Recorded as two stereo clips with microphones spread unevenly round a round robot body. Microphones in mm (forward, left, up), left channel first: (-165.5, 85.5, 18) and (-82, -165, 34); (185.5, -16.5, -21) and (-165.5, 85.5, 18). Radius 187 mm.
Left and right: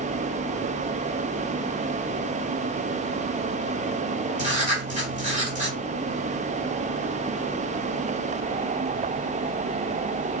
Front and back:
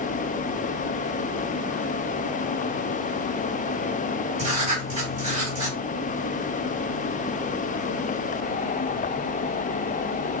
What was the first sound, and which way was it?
Writing, 120° right.